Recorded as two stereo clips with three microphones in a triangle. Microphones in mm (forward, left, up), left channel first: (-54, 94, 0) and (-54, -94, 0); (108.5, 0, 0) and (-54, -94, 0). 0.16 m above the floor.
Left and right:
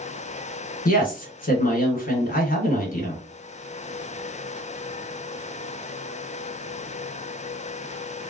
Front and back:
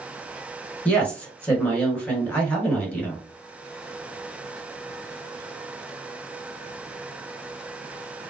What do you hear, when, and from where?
0.8 s a woman speaking: 110° left, 1.6 m